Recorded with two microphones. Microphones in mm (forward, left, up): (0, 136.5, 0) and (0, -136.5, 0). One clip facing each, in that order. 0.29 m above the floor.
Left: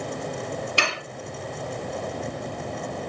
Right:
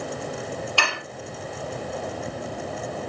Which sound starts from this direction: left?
Dishes clattering, at 0.8 s.